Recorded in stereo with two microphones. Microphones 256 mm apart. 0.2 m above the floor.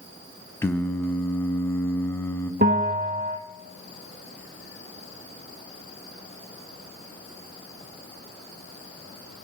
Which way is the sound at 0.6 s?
10° left (ahead or behind).